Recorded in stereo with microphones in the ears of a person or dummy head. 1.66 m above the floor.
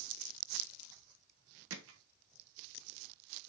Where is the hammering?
75° right (ahead or behind), 1.4 m.